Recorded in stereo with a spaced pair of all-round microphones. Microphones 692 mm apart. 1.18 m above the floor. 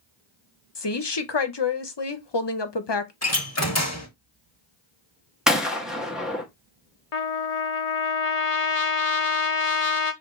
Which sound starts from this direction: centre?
A gunshot, at 5.5 s.